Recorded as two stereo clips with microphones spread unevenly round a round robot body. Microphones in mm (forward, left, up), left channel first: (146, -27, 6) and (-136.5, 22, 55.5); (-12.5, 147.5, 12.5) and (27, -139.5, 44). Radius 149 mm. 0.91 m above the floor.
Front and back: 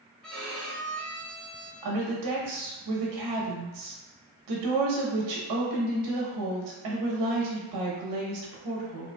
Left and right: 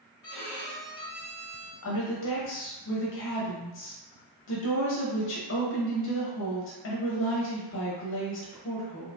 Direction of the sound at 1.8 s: 145° left.